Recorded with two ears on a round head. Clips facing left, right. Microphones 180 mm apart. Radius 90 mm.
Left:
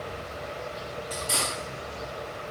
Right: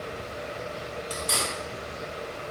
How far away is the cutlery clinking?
About 1.4 m.